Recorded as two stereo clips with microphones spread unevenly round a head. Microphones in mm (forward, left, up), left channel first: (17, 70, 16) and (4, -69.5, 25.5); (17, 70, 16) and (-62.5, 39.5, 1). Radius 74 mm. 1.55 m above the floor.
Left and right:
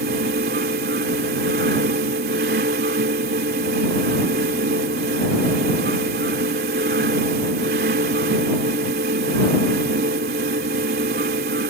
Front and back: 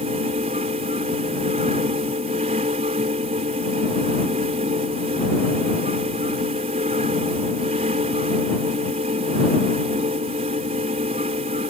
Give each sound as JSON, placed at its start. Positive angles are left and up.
{"t": 0.0, "sound": "a fan", "azimuth_deg": -120}